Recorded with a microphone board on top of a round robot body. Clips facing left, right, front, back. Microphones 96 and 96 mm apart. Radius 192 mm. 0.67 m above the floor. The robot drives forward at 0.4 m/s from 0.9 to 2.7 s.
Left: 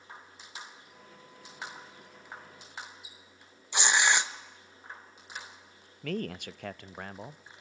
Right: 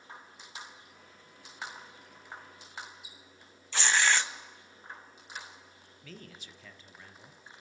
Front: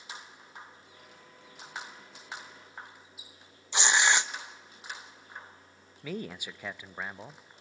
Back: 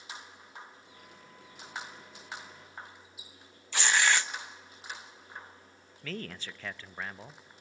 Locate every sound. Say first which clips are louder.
3.7 s tearing paper: left 1 dB, front 1 dB; 40° left, 1.0 m
6.0 s a man speaking: left 15 dB, front 3 dB; 75° left, 0.8 m